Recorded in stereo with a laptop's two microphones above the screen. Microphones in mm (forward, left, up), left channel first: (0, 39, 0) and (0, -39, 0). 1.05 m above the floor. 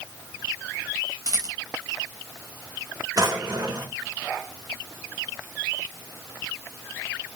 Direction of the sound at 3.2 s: 60° right (ahead or behind).